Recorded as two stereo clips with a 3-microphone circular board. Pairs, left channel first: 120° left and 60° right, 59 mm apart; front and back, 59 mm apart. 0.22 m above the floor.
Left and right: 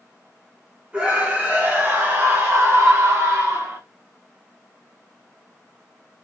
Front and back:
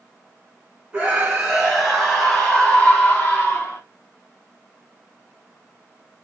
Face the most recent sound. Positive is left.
turn(degrees=-45)